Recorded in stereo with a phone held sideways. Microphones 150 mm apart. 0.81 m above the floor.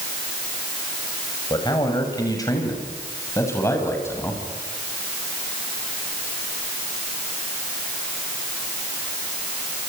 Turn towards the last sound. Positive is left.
turn(degrees=15)  # may be behind; listen again after turning